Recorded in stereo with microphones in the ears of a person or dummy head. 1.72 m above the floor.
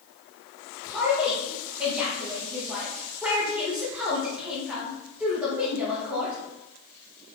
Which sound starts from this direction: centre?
A woman speaking, at 0.9 s.